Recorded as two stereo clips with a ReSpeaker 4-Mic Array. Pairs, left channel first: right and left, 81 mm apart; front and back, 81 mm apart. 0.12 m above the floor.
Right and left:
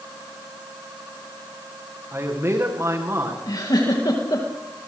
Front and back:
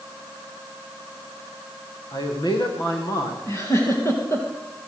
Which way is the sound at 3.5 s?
55° right.